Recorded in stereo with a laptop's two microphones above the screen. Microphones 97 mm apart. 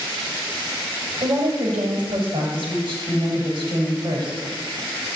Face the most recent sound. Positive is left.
turn(degrees=-55)  # may be behind; listen again after turning